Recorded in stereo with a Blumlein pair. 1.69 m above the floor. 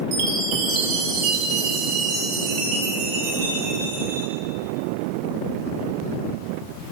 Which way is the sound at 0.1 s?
40° right.